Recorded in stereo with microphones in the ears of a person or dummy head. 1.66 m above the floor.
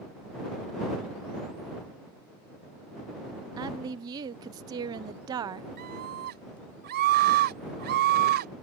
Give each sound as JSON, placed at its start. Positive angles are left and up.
{"t": 3.6, "sound": "a woman speaking", "side_deg": -20}
{"t": 5.8, "sound": "a scream", "side_deg": -45}